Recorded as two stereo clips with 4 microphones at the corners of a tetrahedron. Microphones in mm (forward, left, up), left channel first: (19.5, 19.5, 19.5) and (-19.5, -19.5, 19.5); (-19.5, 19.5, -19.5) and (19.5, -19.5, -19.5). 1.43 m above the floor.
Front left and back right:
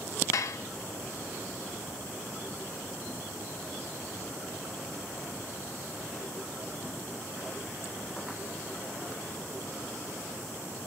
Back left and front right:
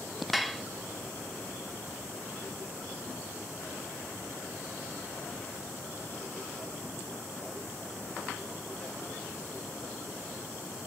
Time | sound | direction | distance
0.3 | dishes clattering | 45° left | 1.0 m